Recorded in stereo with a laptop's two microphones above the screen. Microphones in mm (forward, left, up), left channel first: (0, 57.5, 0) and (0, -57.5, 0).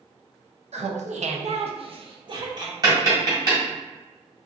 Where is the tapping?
35° right (ahead or behind), 1.9 m.